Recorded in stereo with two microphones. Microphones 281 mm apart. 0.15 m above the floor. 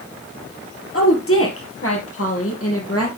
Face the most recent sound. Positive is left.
turn(degrees=55)  # may be behind; listen again after turning